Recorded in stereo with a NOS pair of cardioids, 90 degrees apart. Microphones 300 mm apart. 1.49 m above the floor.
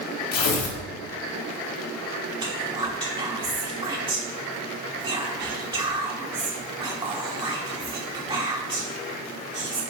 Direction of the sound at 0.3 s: 60° left.